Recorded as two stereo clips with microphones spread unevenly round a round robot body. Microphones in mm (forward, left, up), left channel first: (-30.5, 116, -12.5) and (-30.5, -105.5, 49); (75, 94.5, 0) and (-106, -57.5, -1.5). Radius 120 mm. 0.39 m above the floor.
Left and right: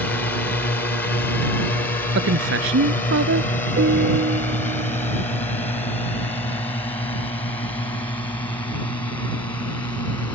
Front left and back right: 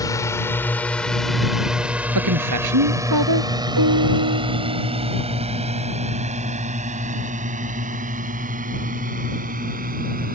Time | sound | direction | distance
0.0 | a drone | 95° left | ?
2.1 | a woman speaking | 125° right | ?
3.8 | a piano | 140° right | ?